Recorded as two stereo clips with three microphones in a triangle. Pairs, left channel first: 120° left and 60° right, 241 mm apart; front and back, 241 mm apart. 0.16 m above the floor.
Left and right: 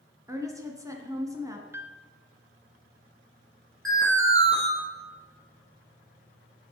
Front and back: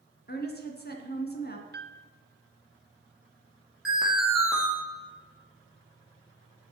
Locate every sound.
0.3 s a woman speaking: 10° left, 2 m
1.7 s a piano: 140° right, 0.7 m
3.9 s an alarm: 90° right, 3.5 m